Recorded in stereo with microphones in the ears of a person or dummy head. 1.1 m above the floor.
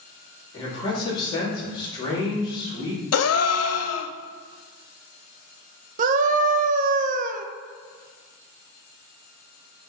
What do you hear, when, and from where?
0.5 s a man speaking: 25° left (ahead or behind), 3 m
3.1 s a gasp: 75° left (ahead or behind), 0.6 m
6.0 s a scream: 45° right (ahead or behind), 0.7 m